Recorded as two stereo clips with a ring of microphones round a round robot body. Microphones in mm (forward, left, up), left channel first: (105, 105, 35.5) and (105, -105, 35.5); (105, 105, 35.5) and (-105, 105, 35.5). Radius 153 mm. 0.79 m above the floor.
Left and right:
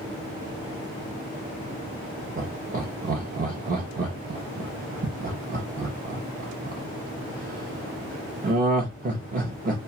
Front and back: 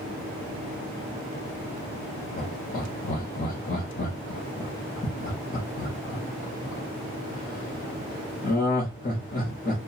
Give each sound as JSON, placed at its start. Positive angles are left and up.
{"t": 2.4, "sound": "laughter", "azimuth_deg": -45, "distance_m": 0.7}